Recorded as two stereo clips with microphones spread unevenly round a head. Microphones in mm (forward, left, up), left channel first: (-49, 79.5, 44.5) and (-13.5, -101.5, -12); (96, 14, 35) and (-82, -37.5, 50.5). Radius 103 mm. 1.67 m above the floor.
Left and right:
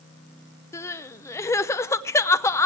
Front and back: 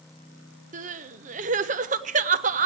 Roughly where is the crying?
Behind left.